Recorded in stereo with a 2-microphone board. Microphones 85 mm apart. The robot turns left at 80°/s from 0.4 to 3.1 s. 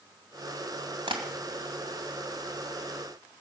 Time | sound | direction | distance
1.1 | tapping | 70° right (ahead or behind) | 2 m